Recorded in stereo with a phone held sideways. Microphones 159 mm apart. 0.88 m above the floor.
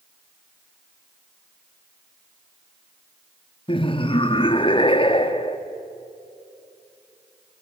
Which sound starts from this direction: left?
Laughter, at 3.7 s.